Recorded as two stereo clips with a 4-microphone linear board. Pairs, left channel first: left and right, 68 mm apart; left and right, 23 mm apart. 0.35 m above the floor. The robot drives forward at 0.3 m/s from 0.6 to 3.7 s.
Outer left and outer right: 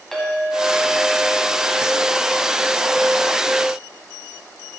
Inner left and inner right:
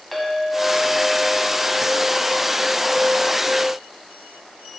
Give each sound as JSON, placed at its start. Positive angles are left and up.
{"t": 0.1, "sound": "a clink", "side_deg": 5, "distance_m": 1.9}